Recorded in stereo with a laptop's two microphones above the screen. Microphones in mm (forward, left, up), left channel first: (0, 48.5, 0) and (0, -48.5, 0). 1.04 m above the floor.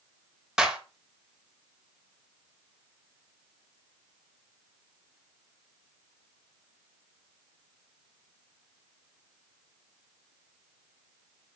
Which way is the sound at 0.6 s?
5° right (ahead or behind).